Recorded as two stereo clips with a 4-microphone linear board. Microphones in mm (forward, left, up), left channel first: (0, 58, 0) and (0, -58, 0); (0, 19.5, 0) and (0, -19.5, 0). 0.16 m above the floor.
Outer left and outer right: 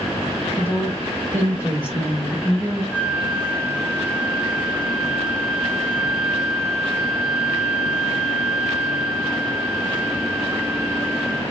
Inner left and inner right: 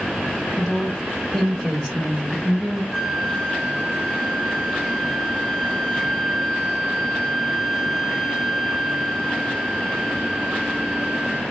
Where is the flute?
10° right (ahead or behind), 0.8 m.